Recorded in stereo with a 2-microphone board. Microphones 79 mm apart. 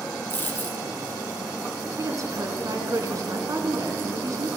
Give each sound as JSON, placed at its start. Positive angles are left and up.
{"t": 0.3, "sound": "a dropped coin", "side_deg": 20, "distance_m": 1.5}
{"t": 2.0, "sound": "a woman speaking", "side_deg": -45, "distance_m": 1.4}